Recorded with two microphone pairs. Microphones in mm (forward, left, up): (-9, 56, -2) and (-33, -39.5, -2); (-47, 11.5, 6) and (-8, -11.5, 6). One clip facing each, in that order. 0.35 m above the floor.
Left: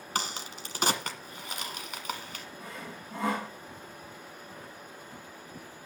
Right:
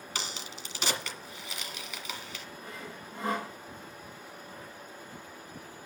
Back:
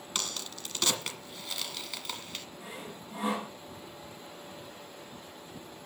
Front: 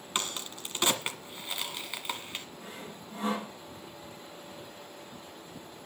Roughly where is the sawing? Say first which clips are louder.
Left 2 dB, back 1 dB; left.